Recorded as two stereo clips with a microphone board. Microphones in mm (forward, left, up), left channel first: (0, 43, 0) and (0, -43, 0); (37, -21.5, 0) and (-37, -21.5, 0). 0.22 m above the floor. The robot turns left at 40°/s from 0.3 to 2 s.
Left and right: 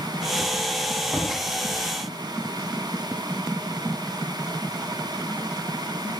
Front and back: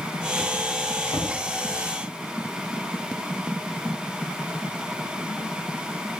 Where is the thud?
10° right, 9 m; by 1.3 s 20° right, 9 m.